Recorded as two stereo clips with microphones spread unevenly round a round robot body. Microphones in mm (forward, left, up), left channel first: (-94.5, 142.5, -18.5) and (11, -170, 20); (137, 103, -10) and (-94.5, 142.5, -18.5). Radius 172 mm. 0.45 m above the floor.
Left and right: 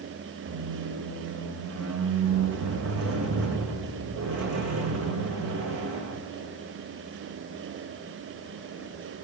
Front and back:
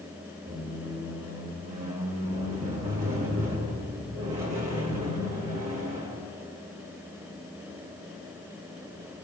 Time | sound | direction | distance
0.5 | a squeak | 115° right | 1.4 m